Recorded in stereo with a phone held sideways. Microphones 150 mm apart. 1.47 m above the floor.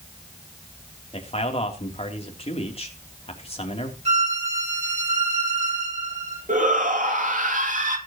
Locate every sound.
1.1 s a man speaking: 40° left (ahead or behind), 3 m
4.0 s a violin: 45° right (ahead or behind), 6.5 m
6.5 s a shout: 60° right (ahead or behind), 2.5 m